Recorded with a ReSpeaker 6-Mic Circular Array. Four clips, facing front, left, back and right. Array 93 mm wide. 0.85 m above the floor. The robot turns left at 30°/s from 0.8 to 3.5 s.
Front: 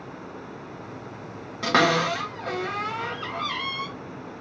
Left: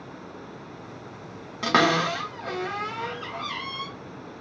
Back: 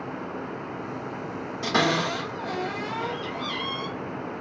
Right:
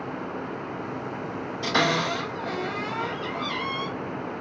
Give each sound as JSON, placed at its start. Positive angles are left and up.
{"t": 1.6, "sound": "a cupboard door", "azimuth_deg": 60, "distance_m": 2.0}